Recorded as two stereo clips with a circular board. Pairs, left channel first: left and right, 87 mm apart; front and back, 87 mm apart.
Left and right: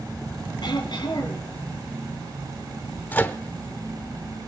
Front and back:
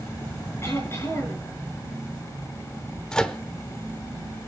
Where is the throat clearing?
60° left, 4.5 m.